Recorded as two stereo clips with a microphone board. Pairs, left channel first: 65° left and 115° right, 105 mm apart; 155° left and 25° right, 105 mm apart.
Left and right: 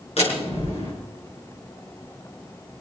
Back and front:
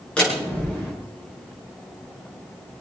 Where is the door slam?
80° left, 7 m.